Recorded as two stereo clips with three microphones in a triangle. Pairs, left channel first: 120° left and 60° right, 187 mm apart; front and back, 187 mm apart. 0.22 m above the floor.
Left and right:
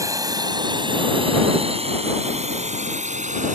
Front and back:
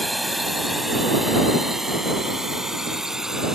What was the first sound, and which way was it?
A drone, 90° right.